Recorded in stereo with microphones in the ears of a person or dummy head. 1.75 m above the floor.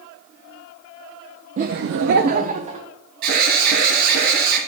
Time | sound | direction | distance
1.6 | laughter | 40° right (ahead or behind) | 0.6 m
3.2 | an alarm | 55° right (ahead or behind) | 2.5 m